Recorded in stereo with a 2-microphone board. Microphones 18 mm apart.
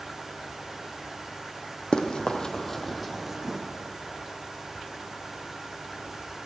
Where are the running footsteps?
65° left (ahead or behind), 1.1 m; by 3.6 s 20° right (ahead or behind), 1.5 m.